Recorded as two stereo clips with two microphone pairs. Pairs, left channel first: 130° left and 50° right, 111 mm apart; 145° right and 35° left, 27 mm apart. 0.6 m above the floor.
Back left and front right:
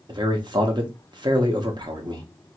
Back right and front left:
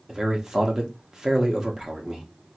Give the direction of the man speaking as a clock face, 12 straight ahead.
1 o'clock.